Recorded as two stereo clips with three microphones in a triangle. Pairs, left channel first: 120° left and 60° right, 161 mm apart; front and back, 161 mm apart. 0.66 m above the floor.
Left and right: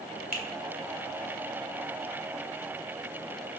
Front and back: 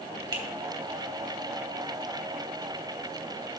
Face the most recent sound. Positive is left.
turn(degrees=120)